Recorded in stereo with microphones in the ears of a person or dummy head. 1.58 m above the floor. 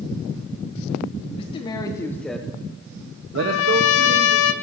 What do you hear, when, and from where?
1.4 s a man speaking: 30° left (ahead or behind), 1.3 m; by 4.3 s 80° right, 1.3 m
3.4 s a trumpet: 75° left (ahead or behind), 0.7 m